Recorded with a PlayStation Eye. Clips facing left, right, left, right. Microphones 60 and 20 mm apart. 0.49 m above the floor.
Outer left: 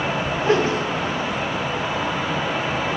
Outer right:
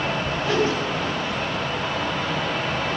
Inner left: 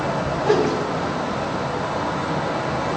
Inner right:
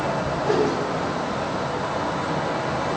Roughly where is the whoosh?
Left.